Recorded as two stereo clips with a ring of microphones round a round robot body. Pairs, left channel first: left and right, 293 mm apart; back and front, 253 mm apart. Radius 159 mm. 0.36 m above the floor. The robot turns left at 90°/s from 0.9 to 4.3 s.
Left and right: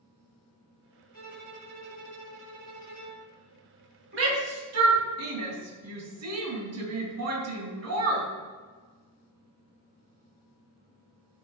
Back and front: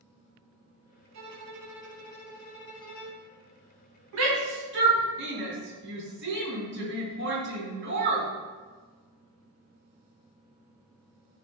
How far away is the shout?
About 3 m.